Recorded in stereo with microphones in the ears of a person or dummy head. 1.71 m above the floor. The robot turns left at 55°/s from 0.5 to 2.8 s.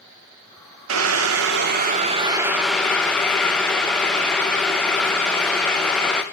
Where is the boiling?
80° right, 0.7 m; by 6.2 s 175° left, 0.7 m.